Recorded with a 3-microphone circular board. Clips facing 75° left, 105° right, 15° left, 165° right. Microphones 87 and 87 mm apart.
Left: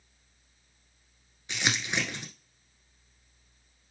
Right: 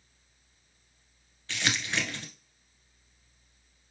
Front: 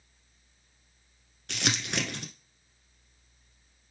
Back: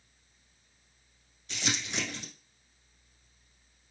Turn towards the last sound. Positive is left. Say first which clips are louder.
# left 1 dB, front 3 dB
turn(degrees=0)